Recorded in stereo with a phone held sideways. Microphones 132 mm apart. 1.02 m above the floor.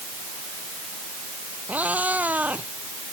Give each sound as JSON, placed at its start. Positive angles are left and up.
{"t": 1.7, "sound": "a cat meowing", "side_deg": -10}